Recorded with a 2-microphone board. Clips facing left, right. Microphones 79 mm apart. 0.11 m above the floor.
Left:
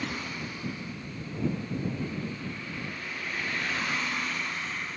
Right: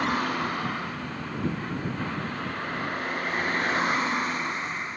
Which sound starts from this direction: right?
A vehicle, at 0.0 s.